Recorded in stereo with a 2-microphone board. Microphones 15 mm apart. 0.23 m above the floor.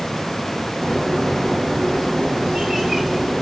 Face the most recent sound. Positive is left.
turn(degrees=-10)  # may be behind; listen again after turning